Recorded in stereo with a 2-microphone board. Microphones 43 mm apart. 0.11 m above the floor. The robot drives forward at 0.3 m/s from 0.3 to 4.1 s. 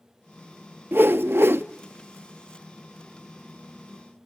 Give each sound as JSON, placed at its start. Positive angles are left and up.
{"t": 0.9, "sound": "a whoosh", "side_deg": -55, "distance_m": 0.5}